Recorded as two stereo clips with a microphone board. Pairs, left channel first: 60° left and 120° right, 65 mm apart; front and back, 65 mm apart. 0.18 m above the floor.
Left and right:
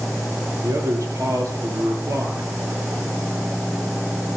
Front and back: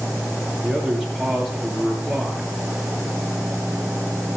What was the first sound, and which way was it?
A man speaking, 95° right.